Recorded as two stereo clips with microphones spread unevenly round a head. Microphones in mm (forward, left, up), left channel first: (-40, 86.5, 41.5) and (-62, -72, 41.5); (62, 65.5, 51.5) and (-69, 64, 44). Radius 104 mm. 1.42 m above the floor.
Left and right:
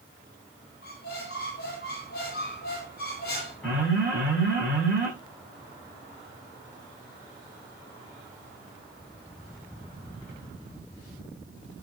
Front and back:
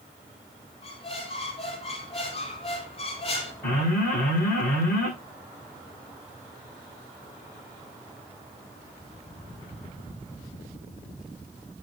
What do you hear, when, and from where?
0.8 s a squeak: 35° left, 4.5 m
3.6 s an alarm: 5° right, 7.5 m